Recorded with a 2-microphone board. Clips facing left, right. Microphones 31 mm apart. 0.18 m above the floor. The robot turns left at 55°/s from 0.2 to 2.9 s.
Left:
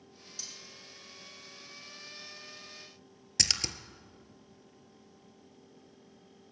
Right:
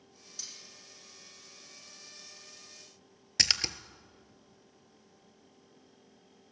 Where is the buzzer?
No buzzer in this recording.